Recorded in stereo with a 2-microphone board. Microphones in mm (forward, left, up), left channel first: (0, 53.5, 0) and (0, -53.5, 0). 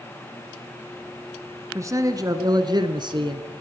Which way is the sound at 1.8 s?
30° right (ahead or behind).